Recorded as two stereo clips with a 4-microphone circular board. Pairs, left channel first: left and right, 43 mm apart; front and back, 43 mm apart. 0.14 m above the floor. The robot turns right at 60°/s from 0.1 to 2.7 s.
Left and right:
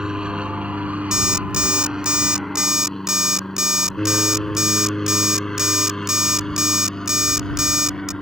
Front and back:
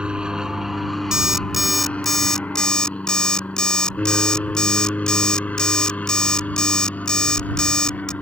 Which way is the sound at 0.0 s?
140° right.